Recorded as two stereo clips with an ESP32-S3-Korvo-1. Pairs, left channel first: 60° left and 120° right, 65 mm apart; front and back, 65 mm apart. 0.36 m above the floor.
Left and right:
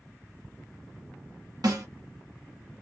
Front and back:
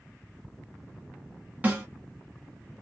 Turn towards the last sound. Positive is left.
turn(degrees=-120)